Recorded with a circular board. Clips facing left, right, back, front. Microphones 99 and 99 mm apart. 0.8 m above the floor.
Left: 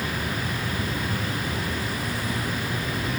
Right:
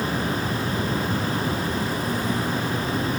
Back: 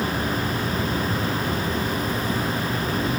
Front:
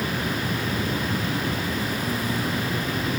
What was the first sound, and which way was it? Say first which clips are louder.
An insect: right 4 dB, back 2 dB; 50° right.